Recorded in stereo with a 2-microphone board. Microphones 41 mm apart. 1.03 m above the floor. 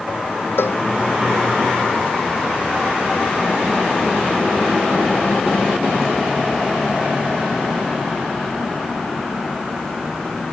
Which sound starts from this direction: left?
A cowbell, at 0.6 s.